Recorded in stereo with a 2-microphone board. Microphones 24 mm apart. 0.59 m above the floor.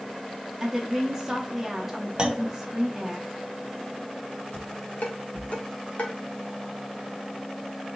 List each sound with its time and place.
0.6 s a woman speaking: 5° right (ahead or behind), 0.7 m
2.2 s a clunk: 35° right (ahead or behind), 0.7 m
4.5 s dishes clattering: 70° left (ahead or behind), 1.3 m